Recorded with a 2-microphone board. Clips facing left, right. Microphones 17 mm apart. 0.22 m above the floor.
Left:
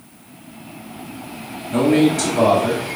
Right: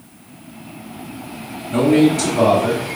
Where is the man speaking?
15° left (ahead or behind), 0.9 m.